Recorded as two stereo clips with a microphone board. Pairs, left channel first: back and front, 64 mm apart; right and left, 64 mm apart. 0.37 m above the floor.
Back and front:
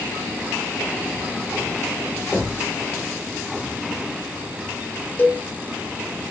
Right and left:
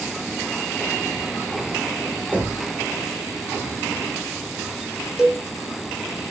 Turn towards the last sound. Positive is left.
turn(degrees=160)